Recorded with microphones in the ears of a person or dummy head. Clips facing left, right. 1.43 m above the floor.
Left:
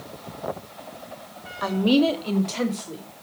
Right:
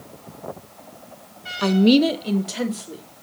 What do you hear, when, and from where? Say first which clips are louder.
1.6 s a woman speaking: right 4 dB; 35° right (ahead or behind), 0.7 m; by 3.0 s centre (ahead or behind), 1.8 m